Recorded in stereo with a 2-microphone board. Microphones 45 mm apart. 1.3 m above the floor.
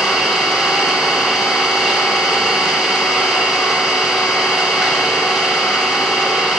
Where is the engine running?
5° left (ahead or behind), 2.5 m.